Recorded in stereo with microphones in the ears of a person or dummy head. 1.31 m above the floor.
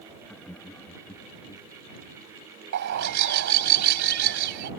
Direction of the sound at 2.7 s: 65° right (ahead or behind).